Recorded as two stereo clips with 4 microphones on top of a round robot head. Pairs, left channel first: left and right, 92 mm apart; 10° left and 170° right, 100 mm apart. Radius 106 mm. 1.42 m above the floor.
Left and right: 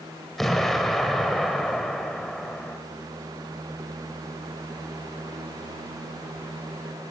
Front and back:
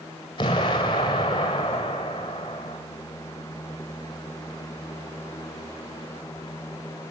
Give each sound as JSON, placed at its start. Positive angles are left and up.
{"t": 0.4, "sound": "an explosion", "azimuth_deg": 0, "distance_m": 1.3}